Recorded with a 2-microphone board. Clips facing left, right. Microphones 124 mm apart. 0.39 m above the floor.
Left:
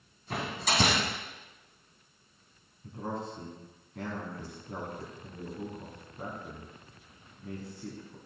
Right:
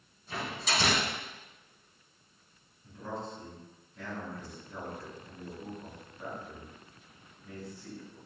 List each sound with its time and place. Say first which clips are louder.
0.3 s a door slam: left 2 dB; 60° left (ahead or behind), 2.5 m
2.8 s a man speaking: left 3 dB; 70° left (ahead or behind), 4 m